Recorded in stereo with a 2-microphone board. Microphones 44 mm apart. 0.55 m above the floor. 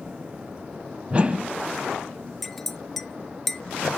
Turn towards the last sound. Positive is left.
turn(degrees=5)  # may be behind; listen again after turning